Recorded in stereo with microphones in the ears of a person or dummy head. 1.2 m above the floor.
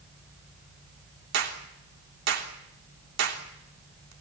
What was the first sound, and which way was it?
A clap, 70° right (ahead or behind).